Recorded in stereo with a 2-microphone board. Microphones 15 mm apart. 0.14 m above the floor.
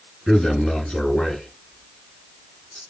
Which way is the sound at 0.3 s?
45° left (ahead or behind).